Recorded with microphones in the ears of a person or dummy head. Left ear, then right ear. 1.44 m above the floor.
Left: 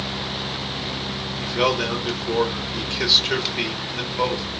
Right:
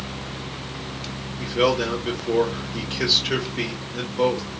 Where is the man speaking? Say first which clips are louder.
Right 1 dB; 20° left (ahead or behind), 2.5 m.